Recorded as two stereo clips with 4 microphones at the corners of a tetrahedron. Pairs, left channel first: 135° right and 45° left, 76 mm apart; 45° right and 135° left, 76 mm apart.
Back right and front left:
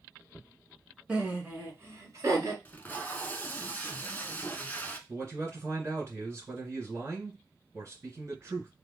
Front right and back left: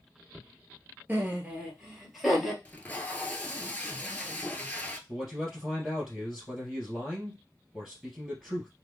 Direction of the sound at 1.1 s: 105° left.